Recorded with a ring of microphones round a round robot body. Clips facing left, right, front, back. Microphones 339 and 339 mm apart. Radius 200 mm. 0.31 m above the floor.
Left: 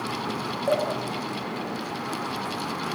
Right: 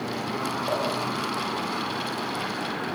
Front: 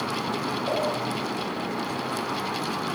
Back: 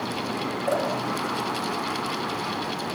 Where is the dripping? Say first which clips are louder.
Left 5 dB, back 3 dB; 115° left, 9 m.